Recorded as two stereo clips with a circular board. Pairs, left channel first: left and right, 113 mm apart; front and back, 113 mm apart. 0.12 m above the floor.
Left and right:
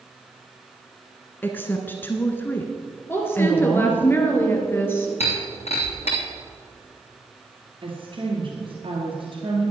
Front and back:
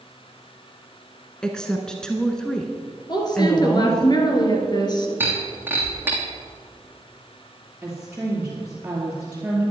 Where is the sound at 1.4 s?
70° left, 1.1 m.